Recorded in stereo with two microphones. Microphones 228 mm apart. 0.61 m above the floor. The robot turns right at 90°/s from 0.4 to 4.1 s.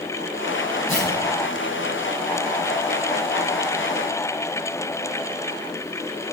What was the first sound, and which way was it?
Tearing paper, 65° left (ahead or behind).